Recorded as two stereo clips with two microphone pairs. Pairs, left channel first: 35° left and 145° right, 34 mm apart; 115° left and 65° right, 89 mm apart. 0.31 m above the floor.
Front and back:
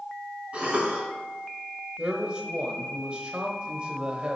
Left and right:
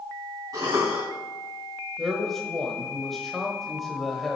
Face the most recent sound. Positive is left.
turn(degrees=-155)